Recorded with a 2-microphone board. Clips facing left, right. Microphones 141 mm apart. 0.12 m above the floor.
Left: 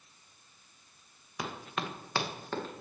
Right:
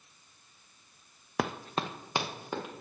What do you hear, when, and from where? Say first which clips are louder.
1.4 s running footsteps: right 5 dB; 70° right (ahead or behind), 0.6 m; by 2.8 s 10° right (ahead or behind), 2 m